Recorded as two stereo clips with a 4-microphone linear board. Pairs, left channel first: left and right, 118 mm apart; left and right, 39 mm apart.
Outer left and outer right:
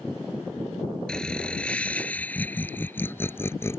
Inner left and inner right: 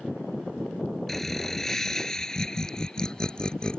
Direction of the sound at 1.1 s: 5° left (ahead or behind).